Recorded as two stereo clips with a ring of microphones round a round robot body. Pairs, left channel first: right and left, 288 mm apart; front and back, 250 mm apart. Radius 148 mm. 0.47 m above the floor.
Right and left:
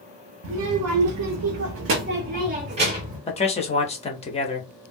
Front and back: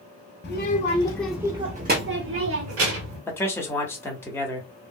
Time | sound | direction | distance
0.4 | a child speaking | 45° left | 0.8 m
3.3 | a man speaking | 65° right | 0.8 m